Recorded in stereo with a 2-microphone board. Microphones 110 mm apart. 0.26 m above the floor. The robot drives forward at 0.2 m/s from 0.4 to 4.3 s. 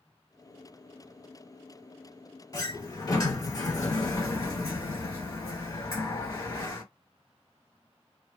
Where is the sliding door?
35° left (ahead or behind), 2.5 m; by 6.8 s 30° left (ahead or behind), 3 m.